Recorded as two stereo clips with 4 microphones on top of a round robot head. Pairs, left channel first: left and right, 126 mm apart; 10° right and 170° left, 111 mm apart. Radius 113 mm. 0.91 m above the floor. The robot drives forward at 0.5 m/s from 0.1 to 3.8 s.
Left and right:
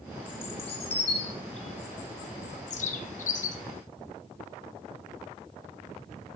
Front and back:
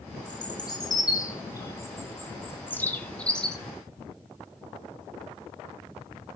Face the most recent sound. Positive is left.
turn(degrees=80)